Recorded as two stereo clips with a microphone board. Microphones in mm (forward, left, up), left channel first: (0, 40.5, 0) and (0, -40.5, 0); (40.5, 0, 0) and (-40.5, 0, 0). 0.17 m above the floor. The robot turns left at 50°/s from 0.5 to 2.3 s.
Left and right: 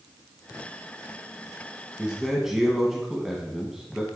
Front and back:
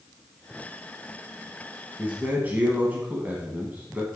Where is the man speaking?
150° right, 1.0 m; by 4.1 s 165° right, 1.0 m.